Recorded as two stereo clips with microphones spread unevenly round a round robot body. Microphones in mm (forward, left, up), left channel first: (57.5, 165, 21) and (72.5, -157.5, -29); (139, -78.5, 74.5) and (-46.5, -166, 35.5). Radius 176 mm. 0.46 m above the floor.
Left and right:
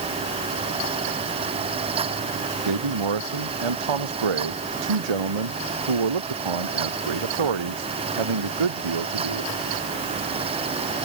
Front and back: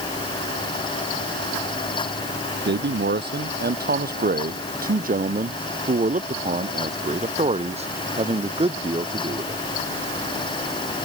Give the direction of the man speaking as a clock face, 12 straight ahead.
4 o'clock.